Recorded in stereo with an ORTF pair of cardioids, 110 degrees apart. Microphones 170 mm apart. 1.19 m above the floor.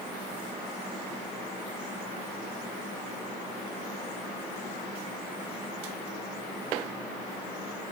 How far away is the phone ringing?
I don't hear a phone ringing.